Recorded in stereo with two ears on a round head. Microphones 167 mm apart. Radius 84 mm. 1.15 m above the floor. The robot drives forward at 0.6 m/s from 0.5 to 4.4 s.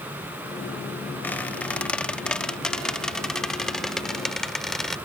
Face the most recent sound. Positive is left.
turn(degrees=5)  # may be behind; listen again after turning